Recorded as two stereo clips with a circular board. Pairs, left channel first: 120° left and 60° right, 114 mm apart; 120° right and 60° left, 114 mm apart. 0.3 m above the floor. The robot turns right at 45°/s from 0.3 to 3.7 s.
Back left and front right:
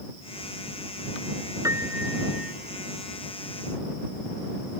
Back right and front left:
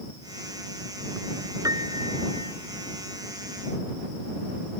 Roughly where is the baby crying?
I don't hear a baby crying.